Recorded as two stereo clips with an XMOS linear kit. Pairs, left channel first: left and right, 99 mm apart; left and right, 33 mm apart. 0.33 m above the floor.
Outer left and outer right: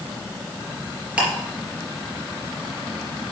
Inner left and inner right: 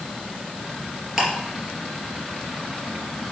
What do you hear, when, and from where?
1.2 s ticking: 10° right (ahead or behind), 3.5 m